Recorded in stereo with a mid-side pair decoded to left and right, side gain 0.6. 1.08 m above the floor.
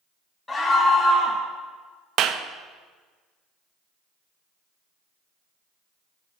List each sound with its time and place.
0.5 s a scream: 25° left, 1.7 m
2.2 s a clap: 60° right, 0.5 m